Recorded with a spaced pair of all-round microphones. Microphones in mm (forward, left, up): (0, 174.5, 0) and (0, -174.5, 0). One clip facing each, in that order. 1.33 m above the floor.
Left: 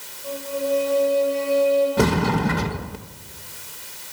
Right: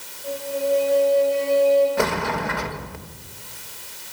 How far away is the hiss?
I don't hear a hiss.